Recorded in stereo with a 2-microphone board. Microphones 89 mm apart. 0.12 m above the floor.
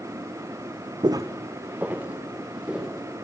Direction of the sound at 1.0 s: 55° right (ahead or behind).